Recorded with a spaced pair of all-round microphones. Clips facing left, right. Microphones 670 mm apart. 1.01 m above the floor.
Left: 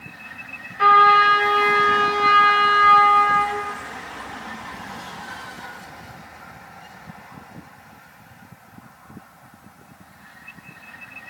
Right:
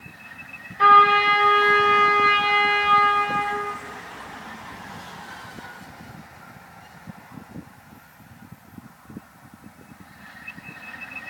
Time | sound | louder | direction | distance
0.8 | a trumpet | left 1 dB | 45° left (ahead or behind) | 0.7 m